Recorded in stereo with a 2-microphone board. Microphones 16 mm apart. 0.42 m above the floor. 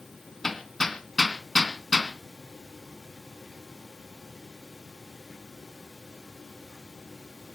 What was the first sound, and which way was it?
Hammering, 25° left (ahead or behind).